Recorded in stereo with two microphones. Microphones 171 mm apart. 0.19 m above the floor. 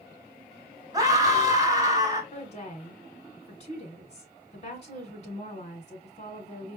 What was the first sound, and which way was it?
A scream, 20° right (ahead or behind).